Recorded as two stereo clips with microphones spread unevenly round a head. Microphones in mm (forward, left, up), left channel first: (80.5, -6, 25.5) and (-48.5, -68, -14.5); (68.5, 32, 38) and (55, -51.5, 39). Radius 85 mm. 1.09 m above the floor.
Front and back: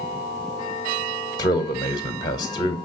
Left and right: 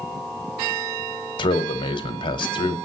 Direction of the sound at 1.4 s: 95° left.